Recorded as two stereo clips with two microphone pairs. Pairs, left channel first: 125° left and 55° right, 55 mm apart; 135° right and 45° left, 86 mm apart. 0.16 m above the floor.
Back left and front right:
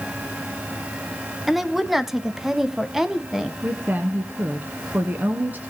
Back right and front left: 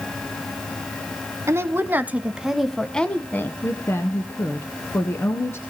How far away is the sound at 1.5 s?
About 1.3 m.